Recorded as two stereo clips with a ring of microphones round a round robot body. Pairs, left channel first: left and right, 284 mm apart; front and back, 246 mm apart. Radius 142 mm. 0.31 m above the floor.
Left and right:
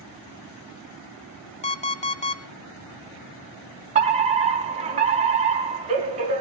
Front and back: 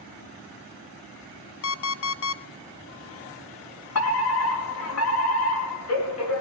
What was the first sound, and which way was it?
An alarm clock, 25° left.